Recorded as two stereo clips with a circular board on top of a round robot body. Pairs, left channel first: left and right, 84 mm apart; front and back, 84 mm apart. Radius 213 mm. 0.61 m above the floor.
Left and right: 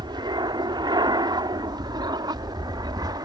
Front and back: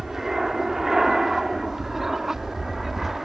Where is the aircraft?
95° right.